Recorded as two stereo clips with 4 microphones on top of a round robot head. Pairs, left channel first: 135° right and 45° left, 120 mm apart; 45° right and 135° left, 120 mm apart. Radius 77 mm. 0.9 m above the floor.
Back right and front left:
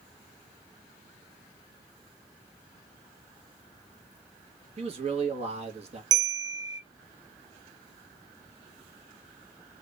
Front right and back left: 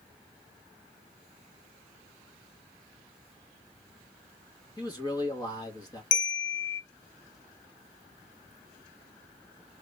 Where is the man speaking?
10° left, 1.3 m.